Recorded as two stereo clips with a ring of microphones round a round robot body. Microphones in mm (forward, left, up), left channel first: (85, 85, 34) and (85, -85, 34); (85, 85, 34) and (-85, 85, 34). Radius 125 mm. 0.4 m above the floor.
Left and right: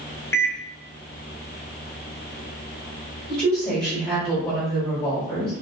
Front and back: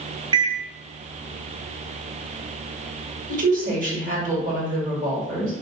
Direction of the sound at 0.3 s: 155° left.